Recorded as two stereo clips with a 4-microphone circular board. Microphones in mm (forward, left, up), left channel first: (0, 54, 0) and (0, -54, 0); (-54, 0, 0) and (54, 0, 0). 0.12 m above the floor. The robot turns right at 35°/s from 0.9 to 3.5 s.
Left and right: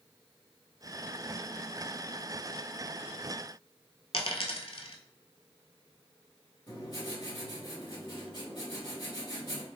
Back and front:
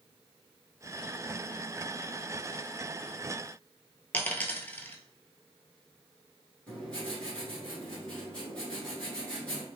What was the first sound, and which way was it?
A dropped coin, 105° left.